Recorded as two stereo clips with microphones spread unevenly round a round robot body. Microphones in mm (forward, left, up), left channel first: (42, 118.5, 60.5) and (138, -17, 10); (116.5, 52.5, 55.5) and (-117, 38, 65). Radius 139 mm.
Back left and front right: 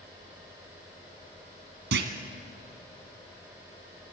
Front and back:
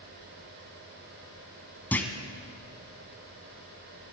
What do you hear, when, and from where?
1.9 s a clunk: 80° right, 1.4 m